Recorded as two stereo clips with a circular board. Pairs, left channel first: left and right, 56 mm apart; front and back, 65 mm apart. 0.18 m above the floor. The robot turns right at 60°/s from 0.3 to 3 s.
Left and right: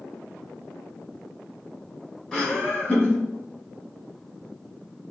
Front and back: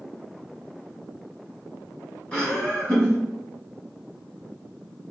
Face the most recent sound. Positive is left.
turn(degrees=65)